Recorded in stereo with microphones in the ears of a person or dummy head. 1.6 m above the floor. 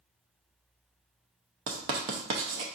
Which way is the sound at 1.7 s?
30° right (ahead or behind).